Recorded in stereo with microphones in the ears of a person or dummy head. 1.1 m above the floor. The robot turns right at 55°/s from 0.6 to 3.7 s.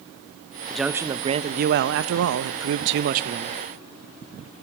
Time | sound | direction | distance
0.7 | a man speaking | 175° left | 0.7 m